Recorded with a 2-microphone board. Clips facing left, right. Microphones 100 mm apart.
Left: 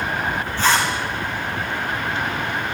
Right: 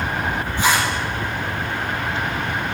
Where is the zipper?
15° right (ahead or behind), 5 m.